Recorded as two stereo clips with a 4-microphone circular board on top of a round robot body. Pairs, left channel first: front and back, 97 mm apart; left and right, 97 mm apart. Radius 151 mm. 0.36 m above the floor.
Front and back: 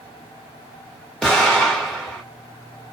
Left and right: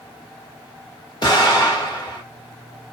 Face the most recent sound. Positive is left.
turn(degrees=85)